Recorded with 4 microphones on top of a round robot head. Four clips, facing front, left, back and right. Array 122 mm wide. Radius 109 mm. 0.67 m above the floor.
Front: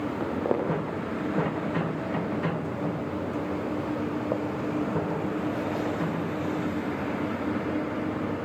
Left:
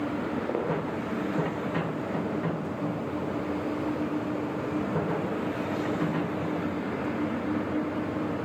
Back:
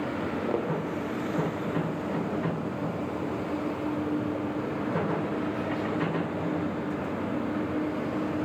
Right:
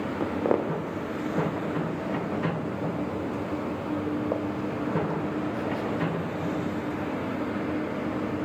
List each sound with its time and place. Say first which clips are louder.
0.2 s footsteps: right 4 dB, front 4 dB; 60° right, 6.5 m; by 6.2 s 35° right, 3.5 m